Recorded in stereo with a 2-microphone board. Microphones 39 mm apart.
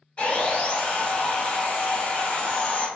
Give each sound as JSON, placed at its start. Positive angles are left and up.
{"t": 0.2, "sound": "sawing", "side_deg": 30, "distance_m": 1.0}